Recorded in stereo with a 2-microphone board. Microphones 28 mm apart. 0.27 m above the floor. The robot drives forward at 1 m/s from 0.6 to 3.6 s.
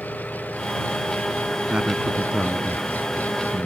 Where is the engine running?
85° left.